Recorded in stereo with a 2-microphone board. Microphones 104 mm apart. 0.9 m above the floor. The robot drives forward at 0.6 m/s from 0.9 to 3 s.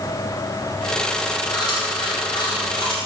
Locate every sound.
1.5 s chewing: 45° left (ahead or behind), 4 m; by 3.0 s 55° left (ahead or behind), 3.5 m